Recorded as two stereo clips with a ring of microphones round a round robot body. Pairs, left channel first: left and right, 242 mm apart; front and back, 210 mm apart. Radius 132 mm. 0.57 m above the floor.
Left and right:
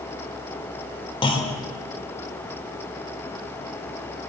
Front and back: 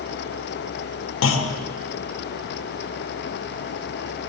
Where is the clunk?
20° left, 1.1 m.